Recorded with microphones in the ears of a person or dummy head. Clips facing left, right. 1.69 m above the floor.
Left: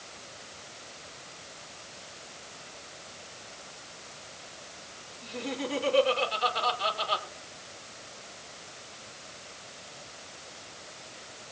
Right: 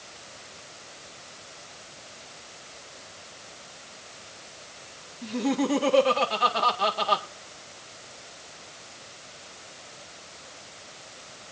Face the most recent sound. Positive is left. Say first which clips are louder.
# right 9 dB
turn(degrees=-70)  # may be behind; listen again after turning